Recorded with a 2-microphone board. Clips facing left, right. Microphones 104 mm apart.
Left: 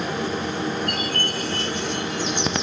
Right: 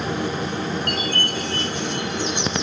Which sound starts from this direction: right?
A chime, at 0.9 s.